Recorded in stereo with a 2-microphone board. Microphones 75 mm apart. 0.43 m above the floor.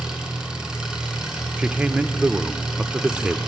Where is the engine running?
10° right (ahead or behind), 3.5 m.